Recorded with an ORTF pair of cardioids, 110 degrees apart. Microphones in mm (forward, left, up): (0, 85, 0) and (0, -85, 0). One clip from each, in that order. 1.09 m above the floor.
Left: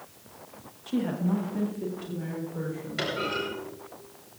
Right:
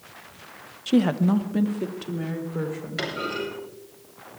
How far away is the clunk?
About 8.5 m.